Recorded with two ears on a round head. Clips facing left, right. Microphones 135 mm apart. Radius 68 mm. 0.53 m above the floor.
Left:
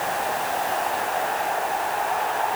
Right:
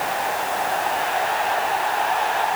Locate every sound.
Only background noise.